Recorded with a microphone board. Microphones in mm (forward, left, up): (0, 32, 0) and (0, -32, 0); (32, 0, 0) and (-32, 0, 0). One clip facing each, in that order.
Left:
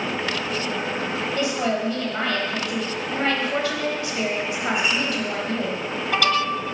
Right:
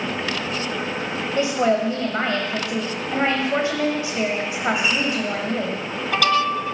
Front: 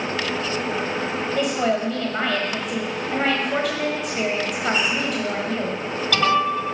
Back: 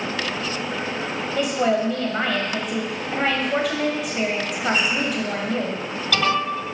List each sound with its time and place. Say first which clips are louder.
1.4 s a woman speaking: right 6 dB, back 2 dB; 90° right, 1.1 m